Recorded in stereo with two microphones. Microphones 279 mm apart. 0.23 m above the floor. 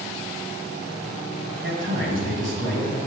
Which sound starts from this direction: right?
A man speaking, at 1.6 s.